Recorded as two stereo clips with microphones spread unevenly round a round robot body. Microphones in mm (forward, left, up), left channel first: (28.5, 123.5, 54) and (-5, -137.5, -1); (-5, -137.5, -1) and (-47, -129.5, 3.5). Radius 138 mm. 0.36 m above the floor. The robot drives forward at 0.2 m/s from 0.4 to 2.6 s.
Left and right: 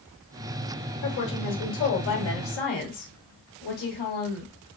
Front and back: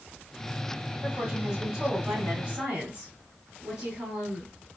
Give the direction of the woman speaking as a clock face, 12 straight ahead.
8 o'clock.